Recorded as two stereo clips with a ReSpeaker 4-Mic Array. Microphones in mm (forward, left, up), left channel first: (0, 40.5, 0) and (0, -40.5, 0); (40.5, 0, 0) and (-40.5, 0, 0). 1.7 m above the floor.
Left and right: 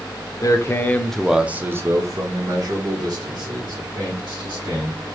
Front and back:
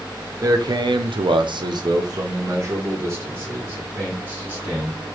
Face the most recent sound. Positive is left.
turn(degrees=-110)